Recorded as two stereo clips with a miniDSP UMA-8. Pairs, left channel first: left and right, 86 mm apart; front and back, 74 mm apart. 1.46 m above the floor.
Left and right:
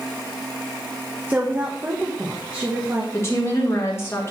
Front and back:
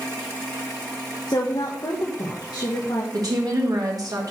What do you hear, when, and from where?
1.3 s a woman speaking: 25° right, 1.2 m
3.1 s a woman speaking: 145° left, 1.7 m